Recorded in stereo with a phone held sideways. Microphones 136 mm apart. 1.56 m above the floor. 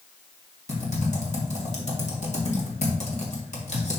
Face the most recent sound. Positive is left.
turn(degrees=60)  # may be behind; listen again after turning